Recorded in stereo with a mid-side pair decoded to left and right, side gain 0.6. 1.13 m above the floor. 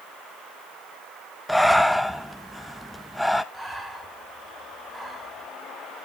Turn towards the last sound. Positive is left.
turn(degrees=-15)